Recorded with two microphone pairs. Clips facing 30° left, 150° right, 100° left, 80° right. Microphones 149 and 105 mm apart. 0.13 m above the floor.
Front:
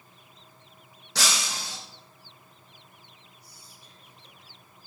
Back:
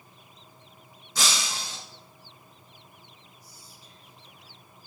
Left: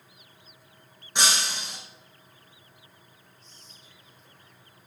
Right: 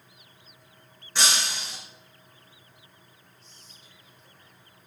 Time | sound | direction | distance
1.1 | breaking glass | 30° left | 4.5 m
3.4 | whispering | 15° left | 4.5 m